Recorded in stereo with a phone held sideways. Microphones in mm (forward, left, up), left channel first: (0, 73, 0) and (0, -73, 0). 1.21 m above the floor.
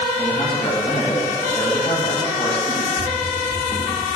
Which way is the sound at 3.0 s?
5° left (ahead or behind).